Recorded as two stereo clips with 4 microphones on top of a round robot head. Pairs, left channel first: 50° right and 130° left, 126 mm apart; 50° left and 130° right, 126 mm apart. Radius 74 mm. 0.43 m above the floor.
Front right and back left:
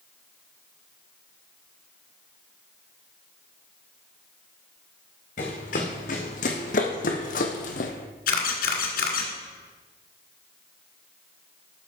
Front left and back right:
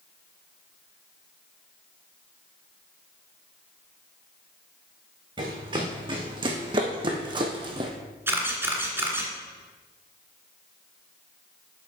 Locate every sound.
5.4 s running footsteps: 75° right, 2.5 m
8.3 s a camera shutter: 55° right, 1.9 m